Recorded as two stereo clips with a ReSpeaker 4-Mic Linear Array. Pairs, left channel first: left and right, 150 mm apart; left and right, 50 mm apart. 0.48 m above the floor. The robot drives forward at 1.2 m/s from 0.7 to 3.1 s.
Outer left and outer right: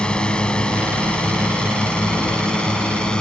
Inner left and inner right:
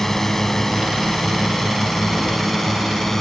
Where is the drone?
5° left (ahead or behind).